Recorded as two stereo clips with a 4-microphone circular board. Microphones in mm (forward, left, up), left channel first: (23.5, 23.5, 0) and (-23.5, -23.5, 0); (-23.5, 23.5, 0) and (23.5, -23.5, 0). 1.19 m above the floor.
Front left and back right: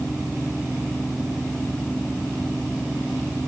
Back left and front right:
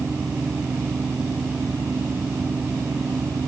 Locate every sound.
Only background noise.